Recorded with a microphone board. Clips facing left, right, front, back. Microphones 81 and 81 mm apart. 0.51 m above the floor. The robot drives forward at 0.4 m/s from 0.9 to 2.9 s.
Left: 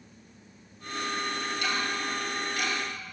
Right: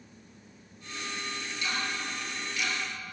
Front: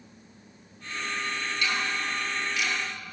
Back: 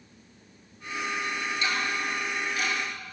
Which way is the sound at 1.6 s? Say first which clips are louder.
Left 1 dB, even; 115° left.